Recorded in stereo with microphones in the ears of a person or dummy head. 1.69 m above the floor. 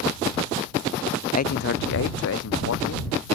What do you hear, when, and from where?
1.3 s a man speaking: 35° left (ahead or behind); by 3.4 s 75° left (ahead or behind)